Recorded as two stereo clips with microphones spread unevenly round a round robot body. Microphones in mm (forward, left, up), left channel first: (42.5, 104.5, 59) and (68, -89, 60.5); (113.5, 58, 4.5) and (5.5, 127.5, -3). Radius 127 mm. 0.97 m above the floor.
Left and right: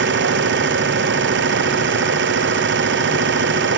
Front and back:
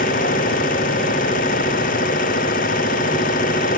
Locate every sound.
0.0 s an engine running: 65° right